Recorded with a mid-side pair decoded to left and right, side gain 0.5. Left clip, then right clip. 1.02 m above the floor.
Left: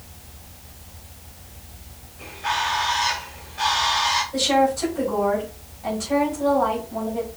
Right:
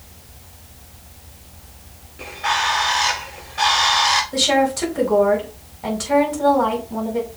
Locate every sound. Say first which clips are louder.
2.2 s a bird: right 4 dB; 60° right, 3.5 m
4.3 s a woman speaking: right 2 dB; 60° right, 4.5 m